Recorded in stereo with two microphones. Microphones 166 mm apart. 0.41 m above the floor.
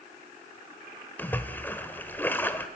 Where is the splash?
10° left (ahead or behind), 1.3 m.